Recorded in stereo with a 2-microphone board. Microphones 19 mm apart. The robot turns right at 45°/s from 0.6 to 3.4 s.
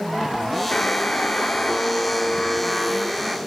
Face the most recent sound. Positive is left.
turn(degrees=-170)